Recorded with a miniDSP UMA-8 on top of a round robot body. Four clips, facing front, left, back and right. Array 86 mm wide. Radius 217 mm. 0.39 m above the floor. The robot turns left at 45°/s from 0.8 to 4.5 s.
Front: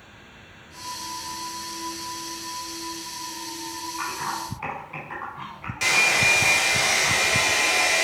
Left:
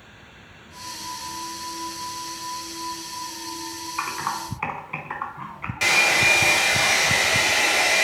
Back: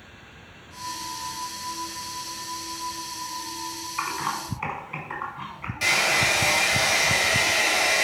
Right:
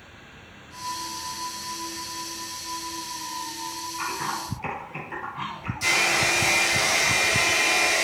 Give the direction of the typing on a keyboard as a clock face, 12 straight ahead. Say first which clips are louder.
Left 3 dB, back 2 dB; 8 o'clock.